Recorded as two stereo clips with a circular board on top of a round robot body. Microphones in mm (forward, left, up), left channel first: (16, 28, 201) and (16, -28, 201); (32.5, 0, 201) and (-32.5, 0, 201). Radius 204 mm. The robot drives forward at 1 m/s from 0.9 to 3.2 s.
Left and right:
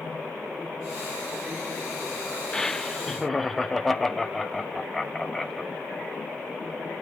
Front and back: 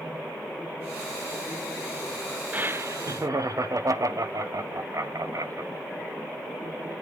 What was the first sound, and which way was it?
Laughter, 150° left.